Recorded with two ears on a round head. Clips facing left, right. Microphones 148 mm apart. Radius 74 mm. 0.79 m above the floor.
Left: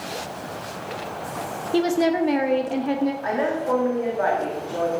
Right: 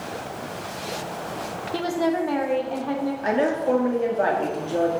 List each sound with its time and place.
1.7 s a woman speaking: 25° left (ahead or behind), 0.8 m
3.2 s a woman speaking: 30° right (ahead or behind), 1.5 m